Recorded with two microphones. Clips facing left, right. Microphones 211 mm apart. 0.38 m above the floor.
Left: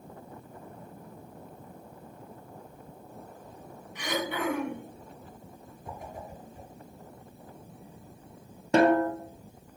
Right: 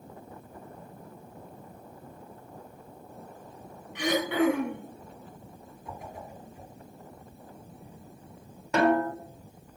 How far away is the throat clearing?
About 4 m.